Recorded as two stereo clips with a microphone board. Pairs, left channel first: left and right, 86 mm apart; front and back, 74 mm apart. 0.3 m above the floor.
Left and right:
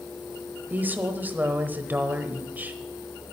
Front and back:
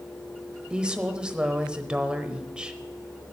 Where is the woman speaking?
120° right, 1.0 m.